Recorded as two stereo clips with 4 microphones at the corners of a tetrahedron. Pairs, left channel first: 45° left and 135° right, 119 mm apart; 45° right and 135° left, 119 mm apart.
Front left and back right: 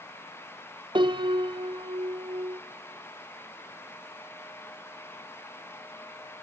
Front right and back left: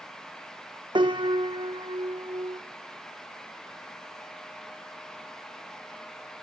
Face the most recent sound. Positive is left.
turn(degrees=180)